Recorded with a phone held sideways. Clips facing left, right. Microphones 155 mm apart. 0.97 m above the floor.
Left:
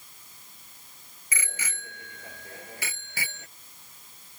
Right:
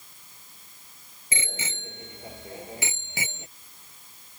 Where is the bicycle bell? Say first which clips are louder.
Right 3 dB; 25° right (ahead or behind); by 3.5 s 20° right (ahead or behind).